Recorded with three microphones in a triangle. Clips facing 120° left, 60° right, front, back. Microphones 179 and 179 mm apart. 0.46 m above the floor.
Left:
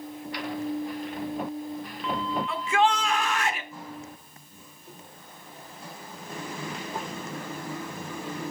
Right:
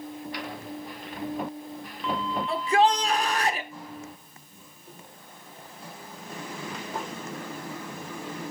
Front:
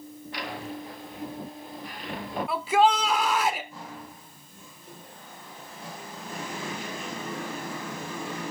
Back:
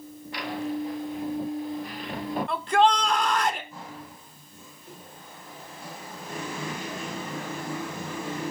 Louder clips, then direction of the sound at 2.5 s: Right 3 dB, even; 80° right.